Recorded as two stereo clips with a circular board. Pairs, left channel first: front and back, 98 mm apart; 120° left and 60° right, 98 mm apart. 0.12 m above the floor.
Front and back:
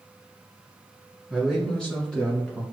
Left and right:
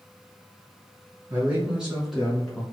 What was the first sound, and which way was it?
A man speaking, 95° right.